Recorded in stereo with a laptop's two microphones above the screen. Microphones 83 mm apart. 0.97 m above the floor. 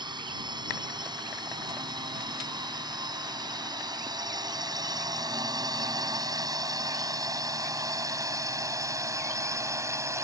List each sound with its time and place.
0.0 s a drone: 70° right (ahead or behind); by 10.2 s 40° right (ahead or behind)